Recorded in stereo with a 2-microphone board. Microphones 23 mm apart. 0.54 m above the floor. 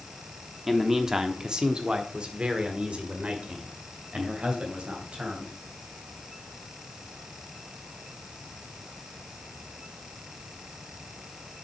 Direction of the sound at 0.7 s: 10° right (ahead or behind).